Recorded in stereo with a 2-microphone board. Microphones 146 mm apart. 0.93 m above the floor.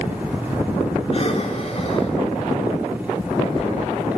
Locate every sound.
1.1 s breathing: 45° left (ahead or behind), 3 m